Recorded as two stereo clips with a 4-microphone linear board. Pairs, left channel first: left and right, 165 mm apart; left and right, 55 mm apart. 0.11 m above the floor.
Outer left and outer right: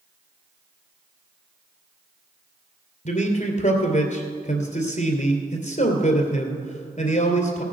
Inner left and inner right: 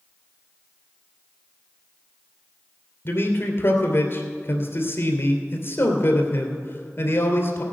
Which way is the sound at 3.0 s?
50° left (ahead or behind).